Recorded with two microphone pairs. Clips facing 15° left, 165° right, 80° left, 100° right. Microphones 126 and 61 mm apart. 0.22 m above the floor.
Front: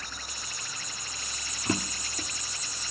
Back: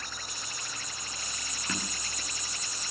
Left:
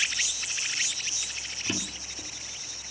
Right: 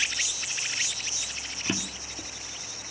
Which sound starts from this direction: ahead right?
A drawer, at 1.6 s.